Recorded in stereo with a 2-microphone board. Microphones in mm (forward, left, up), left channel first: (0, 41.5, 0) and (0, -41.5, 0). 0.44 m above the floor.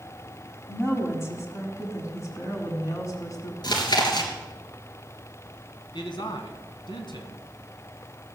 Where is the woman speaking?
30° left (ahead or behind), 4 m; by 3.5 s 45° left (ahead or behind), 5 m.